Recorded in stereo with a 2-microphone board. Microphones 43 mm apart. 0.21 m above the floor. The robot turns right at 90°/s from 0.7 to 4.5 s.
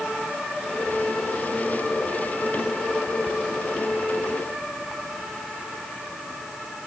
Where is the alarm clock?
No alarm clock in this recording.